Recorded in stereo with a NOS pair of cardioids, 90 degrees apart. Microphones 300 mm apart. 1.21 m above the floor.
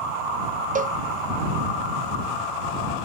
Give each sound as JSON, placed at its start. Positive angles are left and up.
{"t": 0.8, "sound": "a cowbell", "azimuth_deg": -30}